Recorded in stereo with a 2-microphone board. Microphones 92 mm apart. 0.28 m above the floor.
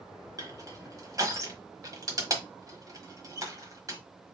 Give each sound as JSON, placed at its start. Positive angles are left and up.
{"t": 0.4, "sound": "crushing", "side_deg": -40, "distance_m": 1.3}